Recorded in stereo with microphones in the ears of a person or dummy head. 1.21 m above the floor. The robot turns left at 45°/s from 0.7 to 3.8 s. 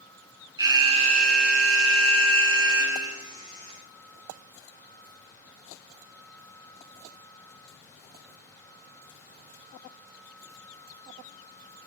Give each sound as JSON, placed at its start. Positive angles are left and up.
{"t": 0.6, "sound": "an alarm", "azimuth_deg": -25, "distance_m": 7.5}